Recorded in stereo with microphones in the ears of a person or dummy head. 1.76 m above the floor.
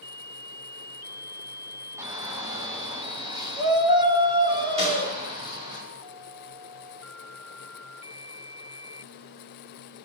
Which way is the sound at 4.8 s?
30° right (ahead or behind).